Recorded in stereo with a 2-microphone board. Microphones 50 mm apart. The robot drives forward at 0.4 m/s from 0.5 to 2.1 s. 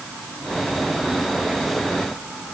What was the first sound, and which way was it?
Only background noise.